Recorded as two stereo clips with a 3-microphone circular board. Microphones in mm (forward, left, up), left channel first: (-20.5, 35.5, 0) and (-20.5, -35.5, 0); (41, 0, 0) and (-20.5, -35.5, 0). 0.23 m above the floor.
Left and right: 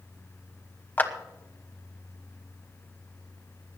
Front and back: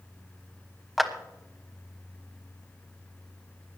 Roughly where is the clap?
Behind left.